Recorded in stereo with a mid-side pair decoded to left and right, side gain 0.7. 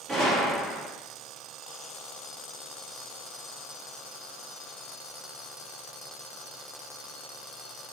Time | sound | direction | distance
0.1 | a gunshot | 20° right | 1.2 m